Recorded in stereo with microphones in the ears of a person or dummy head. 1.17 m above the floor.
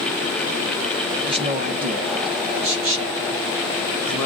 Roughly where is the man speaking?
Right.